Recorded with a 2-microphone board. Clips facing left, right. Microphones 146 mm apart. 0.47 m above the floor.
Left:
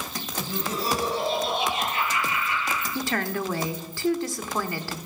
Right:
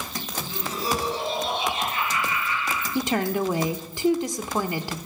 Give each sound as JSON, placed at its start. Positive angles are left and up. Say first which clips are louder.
{"t": 0.4, "sound": "laughter", "louder": "left 3 dB", "side_deg": 50, "distance_m": 8.0}
{"t": 3.0, "sound": "a woman speaking", "louder": "right 6 dB", "side_deg": -20, "distance_m": 0.8}